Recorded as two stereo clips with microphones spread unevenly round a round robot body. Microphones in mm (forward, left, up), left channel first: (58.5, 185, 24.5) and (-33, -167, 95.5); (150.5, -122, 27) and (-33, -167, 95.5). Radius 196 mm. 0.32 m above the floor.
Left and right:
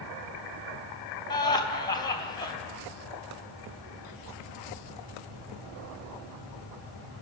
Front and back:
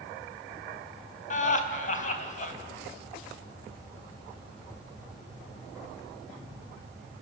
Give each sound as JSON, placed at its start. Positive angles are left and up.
{"t": 1.3, "sound": "laughter", "azimuth_deg": 5, "distance_m": 3.0}